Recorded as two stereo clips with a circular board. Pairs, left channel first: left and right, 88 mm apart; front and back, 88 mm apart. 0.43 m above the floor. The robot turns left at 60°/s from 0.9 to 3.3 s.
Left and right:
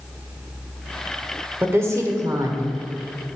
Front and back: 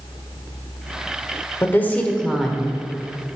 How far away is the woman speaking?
About 1.1 m.